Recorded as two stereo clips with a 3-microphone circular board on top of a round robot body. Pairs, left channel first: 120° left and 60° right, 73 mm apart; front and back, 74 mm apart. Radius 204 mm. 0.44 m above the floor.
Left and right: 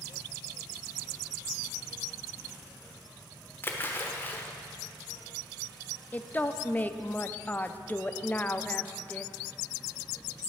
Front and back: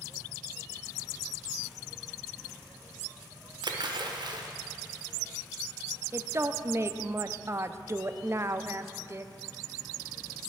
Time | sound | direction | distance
3.6 | a splash | straight behind | 1.2 m
6.1 | a woman speaking | 170° left | 0.8 m